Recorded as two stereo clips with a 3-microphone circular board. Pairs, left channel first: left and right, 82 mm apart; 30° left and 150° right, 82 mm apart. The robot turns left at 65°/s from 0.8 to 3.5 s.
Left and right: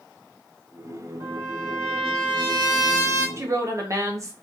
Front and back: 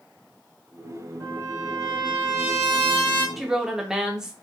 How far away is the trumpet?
About 1.5 m.